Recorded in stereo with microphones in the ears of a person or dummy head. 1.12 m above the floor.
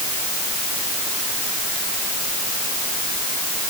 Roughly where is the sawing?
No sawing in this recording.